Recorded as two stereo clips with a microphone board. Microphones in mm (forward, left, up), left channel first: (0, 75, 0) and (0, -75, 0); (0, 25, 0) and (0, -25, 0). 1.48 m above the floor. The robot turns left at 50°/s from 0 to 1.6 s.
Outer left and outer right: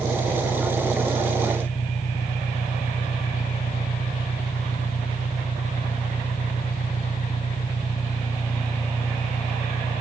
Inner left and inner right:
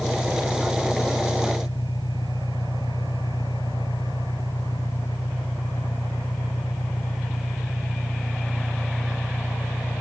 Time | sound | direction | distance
0.0 | an engine running | 130° left | 7.5 m